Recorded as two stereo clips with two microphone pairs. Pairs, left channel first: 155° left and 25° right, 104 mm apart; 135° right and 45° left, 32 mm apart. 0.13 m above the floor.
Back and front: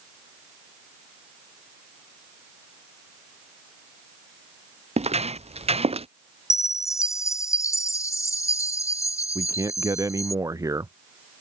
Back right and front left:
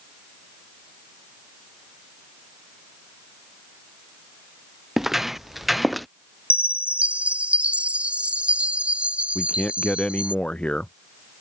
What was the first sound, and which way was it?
Footsteps, 35° right.